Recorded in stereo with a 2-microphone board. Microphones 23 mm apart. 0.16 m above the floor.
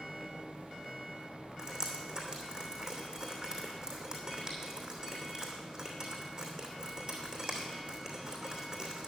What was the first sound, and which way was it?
Dripping, 20° right (ahead or behind).